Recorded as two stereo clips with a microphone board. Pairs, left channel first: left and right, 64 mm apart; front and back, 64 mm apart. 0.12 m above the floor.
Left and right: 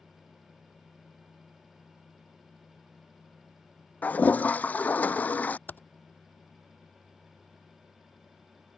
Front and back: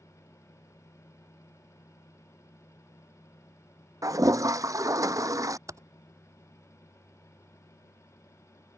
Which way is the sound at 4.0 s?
155° left.